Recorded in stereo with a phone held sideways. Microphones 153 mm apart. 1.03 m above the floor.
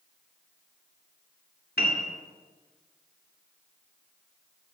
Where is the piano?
85° left, 2 m.